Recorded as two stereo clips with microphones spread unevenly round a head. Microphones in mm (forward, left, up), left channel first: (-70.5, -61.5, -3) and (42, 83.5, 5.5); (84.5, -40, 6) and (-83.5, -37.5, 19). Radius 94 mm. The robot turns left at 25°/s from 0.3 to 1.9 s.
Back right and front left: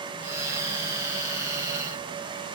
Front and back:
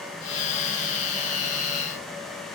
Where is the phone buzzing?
I don't hear a phone buzzing.